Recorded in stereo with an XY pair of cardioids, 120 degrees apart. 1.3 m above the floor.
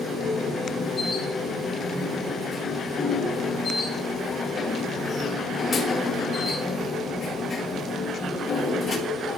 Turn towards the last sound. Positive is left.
turn(degrees=40)